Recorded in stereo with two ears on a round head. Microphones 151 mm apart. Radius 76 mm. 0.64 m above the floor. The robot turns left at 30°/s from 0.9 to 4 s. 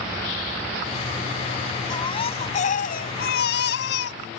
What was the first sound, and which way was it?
A baby crying, 155° left.